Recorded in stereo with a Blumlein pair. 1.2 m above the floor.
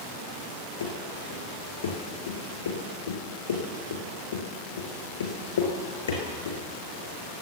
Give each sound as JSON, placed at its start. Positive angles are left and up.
{"t": 0.8, "sound": "running footsteps", "azimuth_deg": 70, "distance_m": 5.5}